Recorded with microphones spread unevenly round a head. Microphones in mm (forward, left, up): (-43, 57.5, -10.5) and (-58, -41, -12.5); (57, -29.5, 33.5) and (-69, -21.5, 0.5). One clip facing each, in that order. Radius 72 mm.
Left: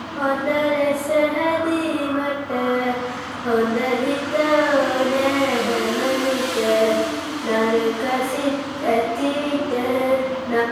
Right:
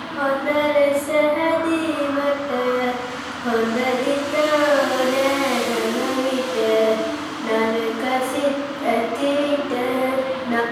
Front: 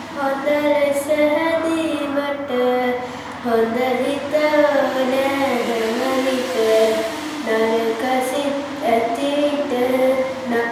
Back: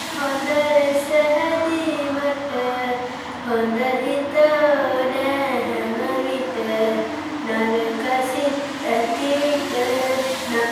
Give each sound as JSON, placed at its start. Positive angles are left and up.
{"t": 0.2, "sound": "singing", "azimuth_deg": -15, "distance_m": 0.8}